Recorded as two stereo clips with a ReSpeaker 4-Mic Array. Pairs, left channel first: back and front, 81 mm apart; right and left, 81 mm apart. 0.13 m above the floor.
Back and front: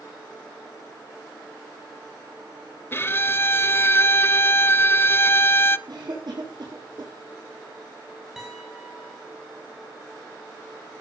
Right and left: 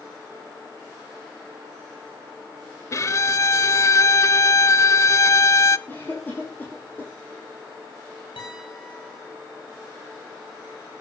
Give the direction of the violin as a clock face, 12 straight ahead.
4 o'clock.